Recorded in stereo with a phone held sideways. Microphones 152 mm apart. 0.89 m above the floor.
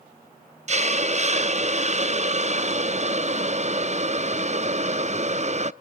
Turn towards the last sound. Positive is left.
turn(degrees=-50)  # may be behind; listen again after turning